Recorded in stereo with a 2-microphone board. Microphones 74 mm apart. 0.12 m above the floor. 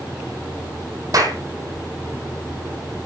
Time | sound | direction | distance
1.1 | a clap | 55° right (ahead or behind) | 3.5 m